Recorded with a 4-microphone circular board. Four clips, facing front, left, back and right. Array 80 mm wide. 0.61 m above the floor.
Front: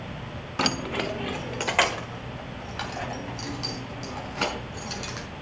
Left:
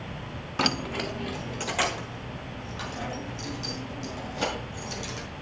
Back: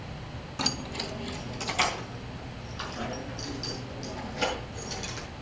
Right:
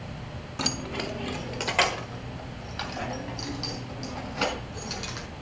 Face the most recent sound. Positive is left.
turn(degrees=-30)